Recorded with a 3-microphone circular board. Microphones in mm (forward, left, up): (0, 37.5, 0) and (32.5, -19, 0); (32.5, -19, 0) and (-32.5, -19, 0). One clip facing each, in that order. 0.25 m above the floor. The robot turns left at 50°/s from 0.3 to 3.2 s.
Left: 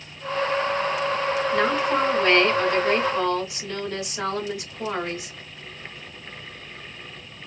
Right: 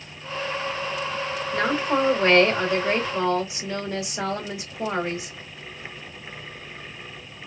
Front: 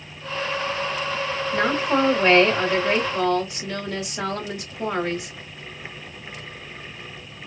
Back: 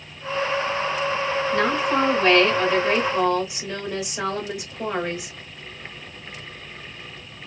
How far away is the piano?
I don't hear a piano.